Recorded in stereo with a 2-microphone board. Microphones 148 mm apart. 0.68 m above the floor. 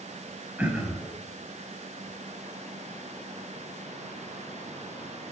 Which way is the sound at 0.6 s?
10° right (ahead or behind).